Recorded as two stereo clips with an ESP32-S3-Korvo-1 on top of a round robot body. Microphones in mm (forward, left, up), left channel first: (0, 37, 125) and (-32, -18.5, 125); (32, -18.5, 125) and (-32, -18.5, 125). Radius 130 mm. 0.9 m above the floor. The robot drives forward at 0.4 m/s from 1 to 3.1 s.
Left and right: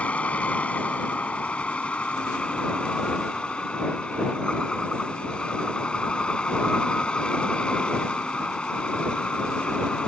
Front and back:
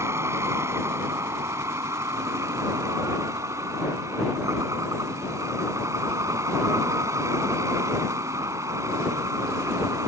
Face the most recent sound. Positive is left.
turn(degrees=135)